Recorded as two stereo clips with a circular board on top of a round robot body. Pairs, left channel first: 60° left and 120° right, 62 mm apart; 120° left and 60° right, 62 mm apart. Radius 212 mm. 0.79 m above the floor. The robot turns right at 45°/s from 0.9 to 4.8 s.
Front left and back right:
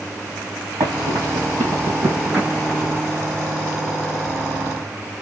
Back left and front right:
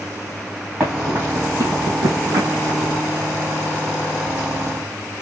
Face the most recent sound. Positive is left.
turn(degrees=65)